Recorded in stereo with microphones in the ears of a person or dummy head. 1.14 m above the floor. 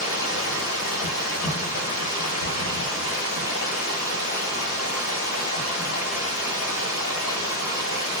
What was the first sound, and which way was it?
Running water, 55° left (ahead or behind).